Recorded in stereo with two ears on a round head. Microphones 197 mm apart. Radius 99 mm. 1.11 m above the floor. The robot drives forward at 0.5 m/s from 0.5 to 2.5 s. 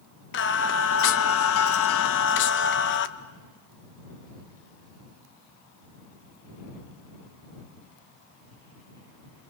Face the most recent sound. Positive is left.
turn(degrees=55)  # may be behind; listen again after turning